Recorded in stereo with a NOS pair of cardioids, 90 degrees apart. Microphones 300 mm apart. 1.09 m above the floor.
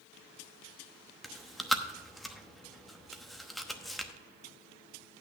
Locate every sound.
1.2 s chewing: straight ahead, 0.9 m